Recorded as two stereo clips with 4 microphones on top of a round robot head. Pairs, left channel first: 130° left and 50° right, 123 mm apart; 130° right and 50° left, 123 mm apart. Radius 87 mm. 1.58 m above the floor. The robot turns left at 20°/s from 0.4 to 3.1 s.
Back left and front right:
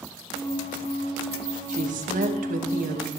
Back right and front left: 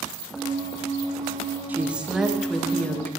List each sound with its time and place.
1.7 s a woman speaking: 30° right, 2.5 m; by 3.1 s 55° right, 2.5 m